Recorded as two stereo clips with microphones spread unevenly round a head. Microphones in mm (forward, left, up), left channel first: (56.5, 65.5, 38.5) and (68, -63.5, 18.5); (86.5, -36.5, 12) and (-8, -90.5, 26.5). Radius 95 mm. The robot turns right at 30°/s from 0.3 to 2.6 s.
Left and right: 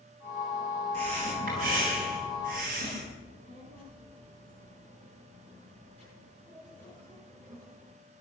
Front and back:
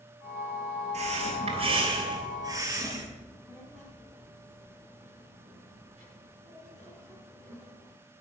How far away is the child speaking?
About 8.5 m.